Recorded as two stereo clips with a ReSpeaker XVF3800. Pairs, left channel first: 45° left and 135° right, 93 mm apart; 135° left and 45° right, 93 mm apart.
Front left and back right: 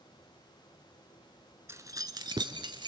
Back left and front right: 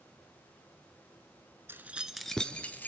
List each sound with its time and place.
1.7 s keys jangling: 95° right, 1.0 m; by 2.9 s 160° right, 1.7 m